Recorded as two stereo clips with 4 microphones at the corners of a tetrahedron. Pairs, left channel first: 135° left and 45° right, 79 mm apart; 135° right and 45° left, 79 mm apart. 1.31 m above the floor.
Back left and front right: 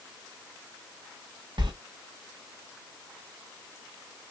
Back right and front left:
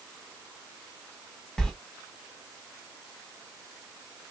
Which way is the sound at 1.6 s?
55° right.